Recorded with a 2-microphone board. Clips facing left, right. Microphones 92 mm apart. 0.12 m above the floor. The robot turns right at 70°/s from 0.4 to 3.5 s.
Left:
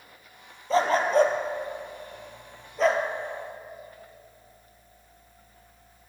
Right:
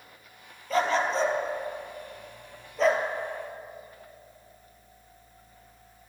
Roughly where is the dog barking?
Left.